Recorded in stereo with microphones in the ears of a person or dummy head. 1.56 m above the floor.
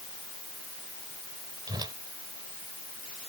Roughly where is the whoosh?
Right.